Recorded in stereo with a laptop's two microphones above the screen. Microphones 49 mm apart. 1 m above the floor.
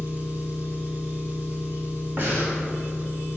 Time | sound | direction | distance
0.0 | an engine running | 40° right (ahead or behind) | 1.4 m
2.2 | breathing | 50° right (ahead or behind) | 1.4 m